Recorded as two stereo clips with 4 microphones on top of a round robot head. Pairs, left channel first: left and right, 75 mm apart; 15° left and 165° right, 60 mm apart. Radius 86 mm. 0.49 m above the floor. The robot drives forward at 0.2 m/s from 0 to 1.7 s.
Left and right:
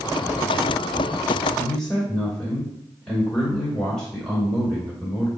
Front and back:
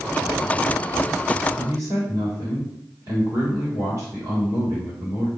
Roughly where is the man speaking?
Behind.